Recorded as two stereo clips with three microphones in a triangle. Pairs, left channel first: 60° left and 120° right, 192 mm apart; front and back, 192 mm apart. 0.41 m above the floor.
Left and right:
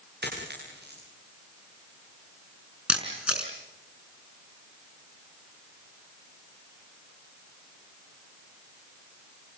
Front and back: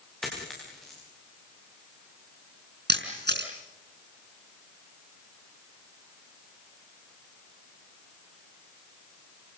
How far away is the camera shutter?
About 5 m.